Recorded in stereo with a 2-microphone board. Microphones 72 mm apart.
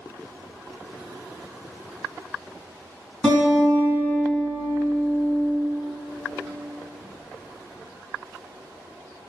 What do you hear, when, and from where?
3.2 s a guitar: 5° left (ahead or behind), 1.9 m